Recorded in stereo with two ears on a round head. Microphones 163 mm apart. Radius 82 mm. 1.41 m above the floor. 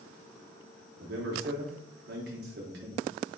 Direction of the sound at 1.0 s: 55° right (ahead or behind).